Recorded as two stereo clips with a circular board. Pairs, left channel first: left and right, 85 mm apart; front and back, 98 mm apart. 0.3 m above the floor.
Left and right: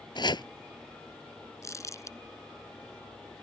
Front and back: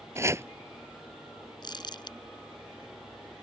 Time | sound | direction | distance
0.1 | chopping | 120° left | ?
1.6 | crumpling | 40° left | ?